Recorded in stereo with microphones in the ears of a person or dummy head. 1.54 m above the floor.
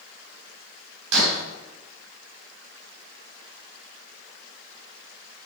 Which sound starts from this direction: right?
Breaking glass, at 1.1 s.